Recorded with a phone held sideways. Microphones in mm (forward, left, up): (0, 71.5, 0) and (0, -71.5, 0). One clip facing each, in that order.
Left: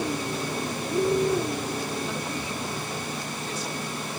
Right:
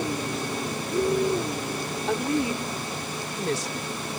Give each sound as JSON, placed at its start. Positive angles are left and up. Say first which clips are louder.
{"t": 2.1, "sound": "a woman speaking", "louder": "right 7 dB", "side_deg": -75}